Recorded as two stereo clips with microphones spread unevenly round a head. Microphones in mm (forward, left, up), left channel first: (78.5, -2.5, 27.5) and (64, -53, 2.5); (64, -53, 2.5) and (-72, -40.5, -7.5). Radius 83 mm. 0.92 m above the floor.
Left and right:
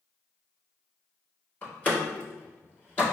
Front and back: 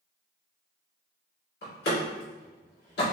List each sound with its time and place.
1.6 s a door slam: 10° left, 1.8 m